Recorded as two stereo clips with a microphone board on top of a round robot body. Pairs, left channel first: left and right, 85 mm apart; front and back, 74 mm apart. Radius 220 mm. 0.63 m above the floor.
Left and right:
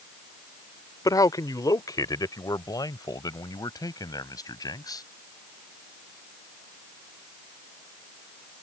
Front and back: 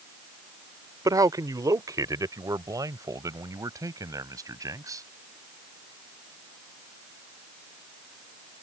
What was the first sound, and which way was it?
A man speaking, 140° left.